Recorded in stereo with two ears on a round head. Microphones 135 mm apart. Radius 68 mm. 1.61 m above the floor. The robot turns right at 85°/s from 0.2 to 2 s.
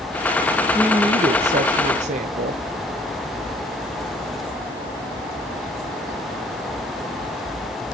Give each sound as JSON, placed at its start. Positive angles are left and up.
{"t": 0.8, "sound": "a woman speaking", "azimuth_deg": -170, "distance_m": 0.6}